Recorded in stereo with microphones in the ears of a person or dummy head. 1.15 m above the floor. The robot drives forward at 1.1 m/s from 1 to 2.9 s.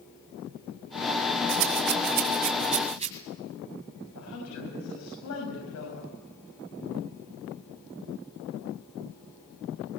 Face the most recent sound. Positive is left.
turn(degrees=90)